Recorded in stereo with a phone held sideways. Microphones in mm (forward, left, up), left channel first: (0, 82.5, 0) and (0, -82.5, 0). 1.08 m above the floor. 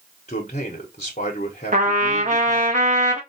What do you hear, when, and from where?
0.3 s a man speaking: 45° left (ahead or behind), 1.1 m
1.7 s a trumpet: 50° right (ahead or behind), 1.1 m